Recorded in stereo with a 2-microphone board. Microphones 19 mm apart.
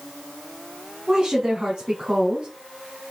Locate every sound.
1.1 s a woman speaking: 50° right (ahead or behind), 3 m